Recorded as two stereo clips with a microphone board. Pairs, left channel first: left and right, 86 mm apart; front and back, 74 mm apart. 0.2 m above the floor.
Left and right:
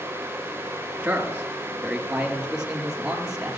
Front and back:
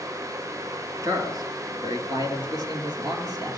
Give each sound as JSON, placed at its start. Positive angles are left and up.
{"t": 1.0, "sound": "a man speaking", "azimuth_deg": -160, "distance_m": 2.5}